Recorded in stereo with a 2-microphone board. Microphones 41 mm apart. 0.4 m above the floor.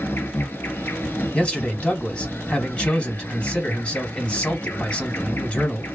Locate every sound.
0.0 s an insect: 65° left (ahead or behind), 0.9 m
1.3 s a man speaking: 30° left (ahead or behind), 1.8 m